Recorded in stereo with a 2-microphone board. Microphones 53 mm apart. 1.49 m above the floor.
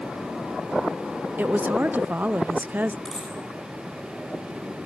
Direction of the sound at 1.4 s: 35° right (ahead or behind).